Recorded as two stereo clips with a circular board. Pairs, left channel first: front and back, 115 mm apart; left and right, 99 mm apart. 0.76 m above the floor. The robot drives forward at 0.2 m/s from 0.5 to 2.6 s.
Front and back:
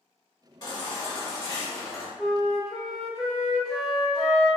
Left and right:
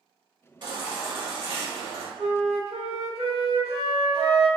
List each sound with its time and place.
0.6 s a baby crying: 50° right, 1.0 m; by 2.1 s 65° right, 0.8 m
2.2 s a flute: 90° right, 1.0 m; by 4.5 s 95° right, 1.0 m